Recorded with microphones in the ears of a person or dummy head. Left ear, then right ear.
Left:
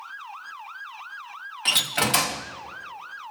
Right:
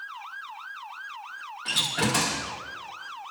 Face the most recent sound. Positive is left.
turn(degrees=25)  # may be behind; listen again after turning